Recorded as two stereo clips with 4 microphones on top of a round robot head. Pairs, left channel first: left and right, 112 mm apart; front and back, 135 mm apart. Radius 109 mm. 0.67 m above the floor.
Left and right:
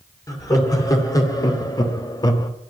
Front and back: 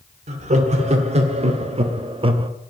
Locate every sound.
0.3 s laughter: 150° left, 2.5 m; by 2.5 s 135° left, 1.2 m